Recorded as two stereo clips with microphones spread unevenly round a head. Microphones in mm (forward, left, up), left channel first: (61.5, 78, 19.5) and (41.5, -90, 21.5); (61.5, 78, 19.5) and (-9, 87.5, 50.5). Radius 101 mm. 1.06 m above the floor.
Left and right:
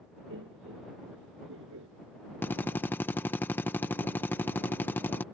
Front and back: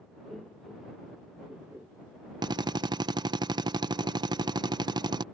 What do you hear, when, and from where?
0.3 s laughter: 100° right; by 1.9 s 105° right
2.4 s a drill: 155° left